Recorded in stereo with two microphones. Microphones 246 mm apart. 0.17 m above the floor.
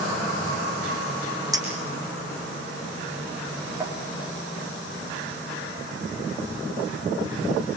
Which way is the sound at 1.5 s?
15° right (ahead or behind).